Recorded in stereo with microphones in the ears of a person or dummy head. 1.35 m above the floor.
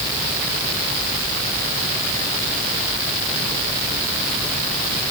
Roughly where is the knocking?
I don't hear knocking.